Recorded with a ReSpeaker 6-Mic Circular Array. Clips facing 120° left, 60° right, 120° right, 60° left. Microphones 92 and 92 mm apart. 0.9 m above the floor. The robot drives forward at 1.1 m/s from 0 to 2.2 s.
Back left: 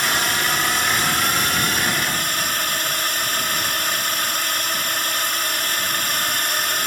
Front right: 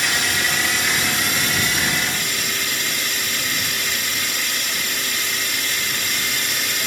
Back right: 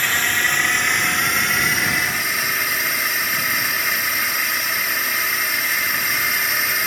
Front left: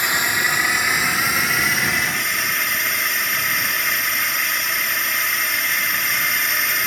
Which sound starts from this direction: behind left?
A drone, at 0.0 s.